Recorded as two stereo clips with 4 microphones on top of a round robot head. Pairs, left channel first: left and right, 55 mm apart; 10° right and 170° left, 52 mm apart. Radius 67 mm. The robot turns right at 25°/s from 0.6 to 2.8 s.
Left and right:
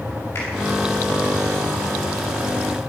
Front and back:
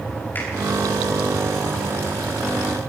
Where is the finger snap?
35° left, 6.5 m.